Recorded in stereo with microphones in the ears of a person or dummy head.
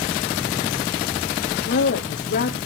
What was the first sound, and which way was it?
A woman speaking, 50° left (ahead or behind).